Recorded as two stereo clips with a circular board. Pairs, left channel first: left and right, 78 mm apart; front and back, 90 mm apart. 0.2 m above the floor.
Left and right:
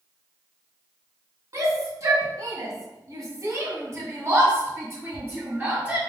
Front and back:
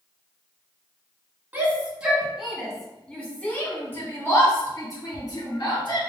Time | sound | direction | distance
1.5 | a shout | 115° right | 1.8 m